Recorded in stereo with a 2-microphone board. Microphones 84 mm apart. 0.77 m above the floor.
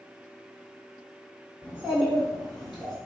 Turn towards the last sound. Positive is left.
turn(degrees=5)  # may be behind; listen again after turning